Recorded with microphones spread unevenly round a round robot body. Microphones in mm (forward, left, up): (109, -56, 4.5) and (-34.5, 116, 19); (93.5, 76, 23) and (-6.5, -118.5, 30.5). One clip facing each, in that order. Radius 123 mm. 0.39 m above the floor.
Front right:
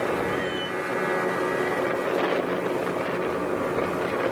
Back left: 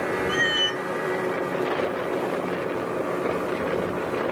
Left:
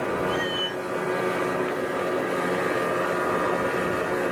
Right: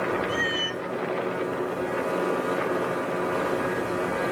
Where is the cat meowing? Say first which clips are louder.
Even, left 2 dB; 175° left.